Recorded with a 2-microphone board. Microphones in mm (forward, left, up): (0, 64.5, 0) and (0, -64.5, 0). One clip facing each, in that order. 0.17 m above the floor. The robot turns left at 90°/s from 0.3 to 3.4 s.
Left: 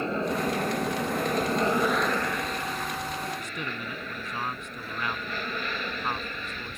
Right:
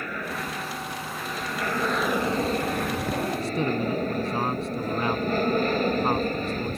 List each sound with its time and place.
0.0 s an aircraft: 150° left; by 6.8 s 130° right
3.4 s a man speaking: 35° right (ahead or behind)